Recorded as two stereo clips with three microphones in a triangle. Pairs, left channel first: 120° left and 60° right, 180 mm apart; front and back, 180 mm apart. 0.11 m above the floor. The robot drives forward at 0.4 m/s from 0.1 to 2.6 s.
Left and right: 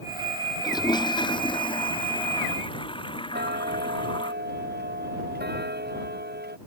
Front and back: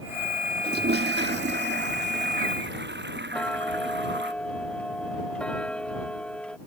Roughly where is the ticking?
Right.